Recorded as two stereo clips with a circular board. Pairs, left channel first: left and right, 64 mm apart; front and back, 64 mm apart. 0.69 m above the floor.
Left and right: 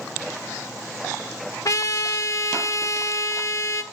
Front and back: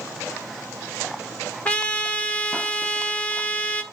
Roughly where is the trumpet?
Ahead left.